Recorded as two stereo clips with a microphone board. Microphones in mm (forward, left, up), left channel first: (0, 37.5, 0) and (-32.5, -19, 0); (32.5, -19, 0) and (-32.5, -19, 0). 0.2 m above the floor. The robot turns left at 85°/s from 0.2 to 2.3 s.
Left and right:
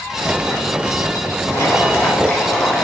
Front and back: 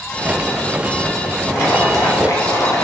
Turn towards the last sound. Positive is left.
turn(degrees=-15)